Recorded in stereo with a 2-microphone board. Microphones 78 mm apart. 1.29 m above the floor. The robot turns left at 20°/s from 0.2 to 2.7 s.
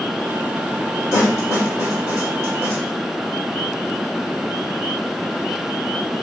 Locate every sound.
1.1 s a snare drum: 40° left (ahead or behind), 1.2 m; by 2.8 s 35° left (ahead or behind), 1.2 m